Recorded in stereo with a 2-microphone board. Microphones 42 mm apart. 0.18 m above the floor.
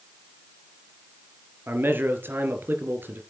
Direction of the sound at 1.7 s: 55° right (ahead or behind).